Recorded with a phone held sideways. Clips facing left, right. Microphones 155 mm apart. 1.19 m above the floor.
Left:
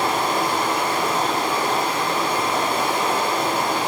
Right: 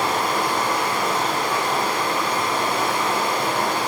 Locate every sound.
0.0 s running water: 25° left (ahead or behind), 1.0 m